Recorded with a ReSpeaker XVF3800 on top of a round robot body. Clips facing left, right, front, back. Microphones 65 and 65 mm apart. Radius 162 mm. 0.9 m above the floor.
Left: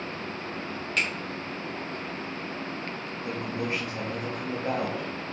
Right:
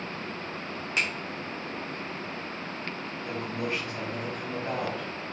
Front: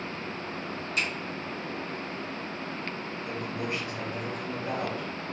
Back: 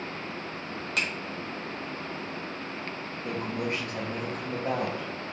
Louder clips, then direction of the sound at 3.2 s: Left 1 dB, back 3 dB; 150° left.